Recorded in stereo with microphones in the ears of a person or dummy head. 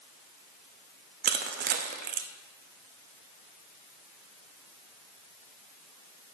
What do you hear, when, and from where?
1.2 s crushing: 45° right (ahead or behind), 0.6 m